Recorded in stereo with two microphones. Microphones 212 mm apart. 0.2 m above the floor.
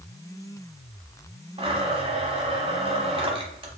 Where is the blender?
25° right (ahead or behind), 0.9 m.